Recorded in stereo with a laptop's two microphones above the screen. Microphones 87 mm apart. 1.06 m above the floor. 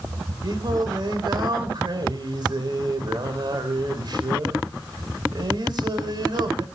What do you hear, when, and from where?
0.4 s singing: 55° right (ahead or behind), 2.5 m